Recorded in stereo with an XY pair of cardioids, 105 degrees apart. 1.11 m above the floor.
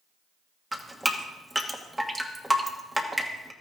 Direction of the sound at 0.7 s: 10° right.